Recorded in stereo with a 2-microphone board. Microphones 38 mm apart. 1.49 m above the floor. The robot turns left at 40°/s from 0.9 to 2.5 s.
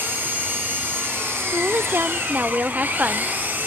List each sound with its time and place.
0.0 s an engine running: 60° right, 10 m; by 3.7 s 120° right, 10 m
1.4 s a woman speaking: 90° right, 0.8 m; by 3.3 s 135° right, 0.8 m